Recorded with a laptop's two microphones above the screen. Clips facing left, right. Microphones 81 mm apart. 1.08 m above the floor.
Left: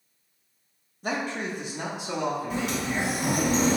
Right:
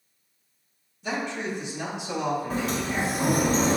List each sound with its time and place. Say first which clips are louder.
1.0 s a man speaking: even; 45° left (ahead or behind), 1.0 m; by 3.5 s 30° left (ahead or behind), 1.9 m
2.5 s a sliding door: right 1 dB; 40° right (ahead or behind), 1.0 m